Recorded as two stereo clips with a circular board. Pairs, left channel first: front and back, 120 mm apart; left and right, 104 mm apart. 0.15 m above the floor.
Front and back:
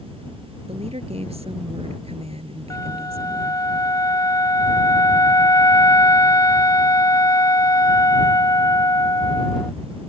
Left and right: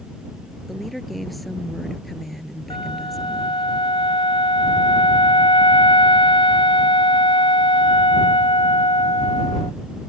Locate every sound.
0.7 s a woman speaking: straight behind
2.7 s a flute: 60° left